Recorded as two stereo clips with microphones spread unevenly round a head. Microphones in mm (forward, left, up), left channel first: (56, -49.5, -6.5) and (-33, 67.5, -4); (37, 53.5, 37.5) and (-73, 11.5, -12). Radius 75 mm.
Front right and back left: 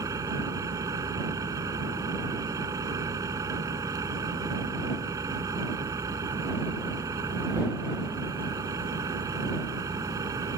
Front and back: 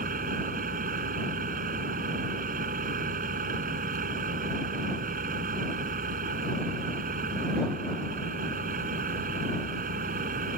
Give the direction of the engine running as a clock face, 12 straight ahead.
5 o'clock.